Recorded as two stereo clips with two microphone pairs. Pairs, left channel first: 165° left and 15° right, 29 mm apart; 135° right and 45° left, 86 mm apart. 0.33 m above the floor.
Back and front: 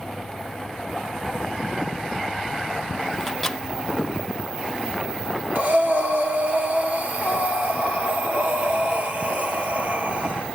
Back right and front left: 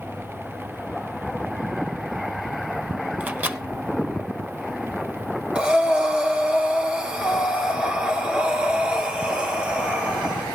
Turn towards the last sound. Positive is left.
turn(degrees=-30)